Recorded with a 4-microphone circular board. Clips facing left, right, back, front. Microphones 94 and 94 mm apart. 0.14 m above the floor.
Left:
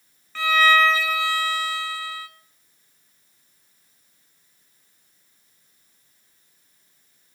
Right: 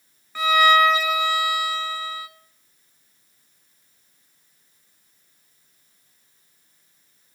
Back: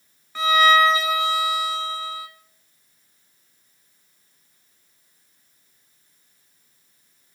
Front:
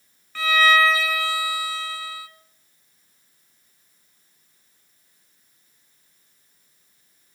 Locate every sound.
0.3 s a violin: 145° right, 0.8 m